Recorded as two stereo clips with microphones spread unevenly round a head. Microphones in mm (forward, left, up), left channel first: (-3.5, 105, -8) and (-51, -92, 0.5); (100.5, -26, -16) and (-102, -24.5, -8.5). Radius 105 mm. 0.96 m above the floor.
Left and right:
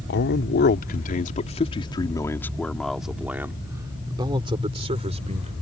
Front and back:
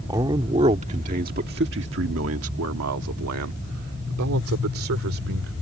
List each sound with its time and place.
0.1 s a man speaking: 105° left; by 5.5 s 160° right